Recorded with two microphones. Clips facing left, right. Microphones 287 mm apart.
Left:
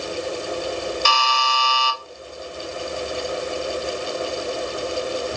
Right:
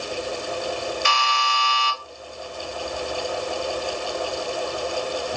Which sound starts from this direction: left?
A buzzer, at 1.1 s.